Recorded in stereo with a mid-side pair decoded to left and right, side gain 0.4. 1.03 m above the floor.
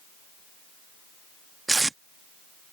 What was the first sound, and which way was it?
Tape being pulled, 25° right.